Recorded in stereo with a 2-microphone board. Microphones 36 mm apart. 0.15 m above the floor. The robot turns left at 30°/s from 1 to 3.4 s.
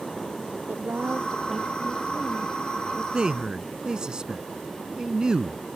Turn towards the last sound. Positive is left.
turn(degrees=-20)  # may be behind; listen again after turning